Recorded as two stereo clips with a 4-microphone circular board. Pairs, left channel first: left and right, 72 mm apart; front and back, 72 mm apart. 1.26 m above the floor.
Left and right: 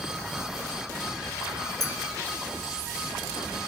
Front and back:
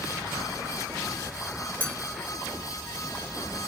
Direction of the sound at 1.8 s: 65° left.